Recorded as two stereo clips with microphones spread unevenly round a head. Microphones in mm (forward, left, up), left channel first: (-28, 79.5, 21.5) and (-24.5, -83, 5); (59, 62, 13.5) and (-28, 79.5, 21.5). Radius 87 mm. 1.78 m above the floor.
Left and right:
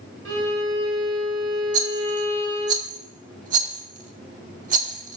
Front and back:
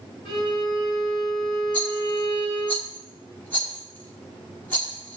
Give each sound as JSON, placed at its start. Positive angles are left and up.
{"t": 0.2, "sound": "a violin", "azimuth_deg": -75, "distance_m": 2.0}
{"t": 1.7, "sound": "a rattle", "azimuth_deg": -85, "distance_m": 0.9}